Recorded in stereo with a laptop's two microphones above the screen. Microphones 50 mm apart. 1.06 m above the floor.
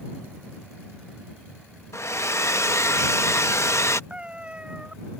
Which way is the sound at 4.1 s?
25° right (ahead or behind).